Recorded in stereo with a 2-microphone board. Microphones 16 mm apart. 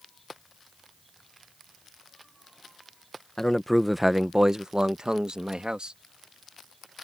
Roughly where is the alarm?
I don't hear an alarm.